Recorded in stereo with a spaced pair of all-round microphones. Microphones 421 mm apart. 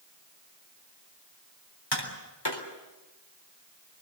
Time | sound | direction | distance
1.9 | tapping | 70° left (ahead or behind) | 4 m